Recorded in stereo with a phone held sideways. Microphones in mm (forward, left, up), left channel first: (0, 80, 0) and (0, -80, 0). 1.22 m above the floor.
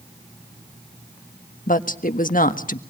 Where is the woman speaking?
60° left (ahead or behind), 1.4 m.